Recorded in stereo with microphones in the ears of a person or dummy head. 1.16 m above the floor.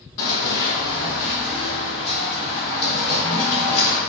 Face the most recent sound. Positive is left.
turn(degrees=45)  # may be behind; listen again after turning